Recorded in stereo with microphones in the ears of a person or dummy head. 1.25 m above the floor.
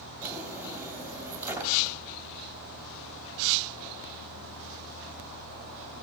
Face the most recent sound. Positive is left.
turn(degrees=-10)  # may be behind; listen again after turning